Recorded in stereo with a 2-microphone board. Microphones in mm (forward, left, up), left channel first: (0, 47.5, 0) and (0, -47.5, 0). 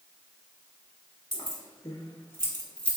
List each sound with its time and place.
1.3 s keys jangling: 45° left (ahead or behind), 1.7 m; by 3.0 s 10° left (ahead or behind), 0.9 m